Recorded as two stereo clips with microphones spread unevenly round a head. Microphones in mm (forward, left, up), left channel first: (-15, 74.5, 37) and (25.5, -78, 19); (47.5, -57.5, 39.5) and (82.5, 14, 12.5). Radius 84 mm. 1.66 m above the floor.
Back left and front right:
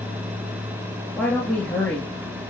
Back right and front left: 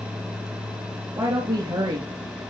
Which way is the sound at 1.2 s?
25° left.